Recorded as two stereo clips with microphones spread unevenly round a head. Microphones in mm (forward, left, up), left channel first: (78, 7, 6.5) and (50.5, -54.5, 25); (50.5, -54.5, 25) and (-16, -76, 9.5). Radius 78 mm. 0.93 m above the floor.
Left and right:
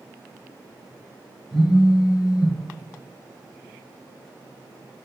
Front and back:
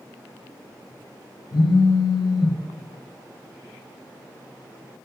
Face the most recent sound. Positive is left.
turn(degrees=-15)